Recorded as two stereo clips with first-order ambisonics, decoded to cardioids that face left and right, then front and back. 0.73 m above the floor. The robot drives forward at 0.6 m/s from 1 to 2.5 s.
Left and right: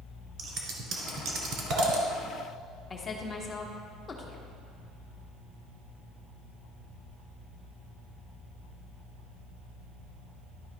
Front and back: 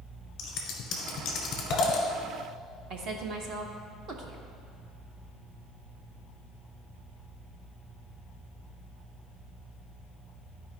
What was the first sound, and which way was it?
Scissors, 40° right.